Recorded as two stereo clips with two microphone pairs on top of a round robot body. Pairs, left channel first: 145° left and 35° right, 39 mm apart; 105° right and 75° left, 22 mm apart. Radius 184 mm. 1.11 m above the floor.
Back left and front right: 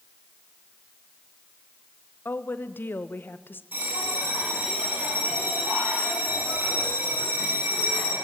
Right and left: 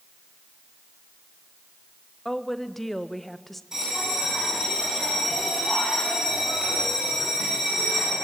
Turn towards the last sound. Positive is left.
turn(degrees=10)